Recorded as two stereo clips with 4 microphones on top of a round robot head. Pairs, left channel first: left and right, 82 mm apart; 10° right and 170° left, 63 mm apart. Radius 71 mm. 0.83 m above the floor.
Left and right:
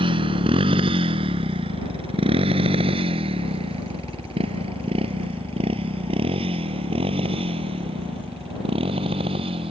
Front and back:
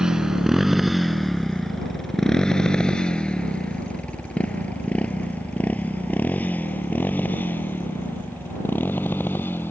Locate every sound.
0.0 s a motorcycle: 110° right; by 9.7 s 75° right